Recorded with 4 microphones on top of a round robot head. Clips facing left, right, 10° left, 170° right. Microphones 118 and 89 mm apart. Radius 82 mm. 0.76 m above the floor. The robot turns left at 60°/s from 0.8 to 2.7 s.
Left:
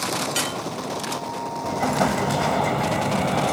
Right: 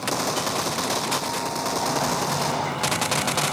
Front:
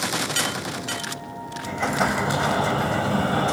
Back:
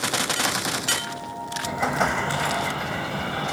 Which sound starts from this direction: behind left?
An explosion, at 1.6 s.